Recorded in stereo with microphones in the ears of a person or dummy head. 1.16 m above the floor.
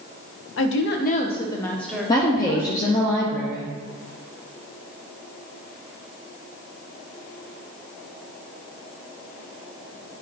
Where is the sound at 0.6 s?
70° left (ahead or behind), 0.8 m; by 3.1 s 15° right (ahead or behind), 2 m.